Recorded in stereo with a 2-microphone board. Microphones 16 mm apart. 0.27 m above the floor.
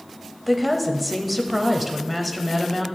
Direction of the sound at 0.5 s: 5° right (ahead or behind).